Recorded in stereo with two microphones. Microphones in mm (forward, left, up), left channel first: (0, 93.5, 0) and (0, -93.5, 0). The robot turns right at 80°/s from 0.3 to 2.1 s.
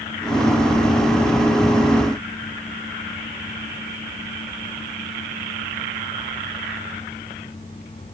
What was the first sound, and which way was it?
Only background noise.